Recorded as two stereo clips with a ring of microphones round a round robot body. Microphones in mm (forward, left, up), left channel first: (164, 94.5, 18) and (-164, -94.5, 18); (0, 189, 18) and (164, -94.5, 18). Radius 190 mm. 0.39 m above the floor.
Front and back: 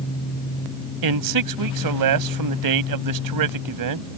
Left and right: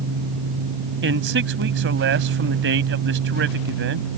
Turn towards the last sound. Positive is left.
turn(degrees=-120)